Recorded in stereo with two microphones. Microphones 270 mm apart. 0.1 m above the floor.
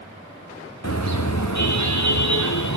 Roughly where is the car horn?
Left.